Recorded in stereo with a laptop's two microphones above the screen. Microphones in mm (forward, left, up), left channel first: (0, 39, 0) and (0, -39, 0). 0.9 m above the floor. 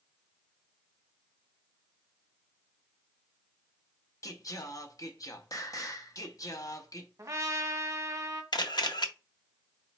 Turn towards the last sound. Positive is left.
turn(degrees=65)  # may be behind; listen again after turning